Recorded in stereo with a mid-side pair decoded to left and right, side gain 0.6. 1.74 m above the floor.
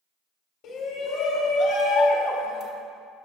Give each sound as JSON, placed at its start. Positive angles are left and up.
{"t": 0.6, "sound": "a shout", "azimuth_deg": 65, "distance_m": 2.0}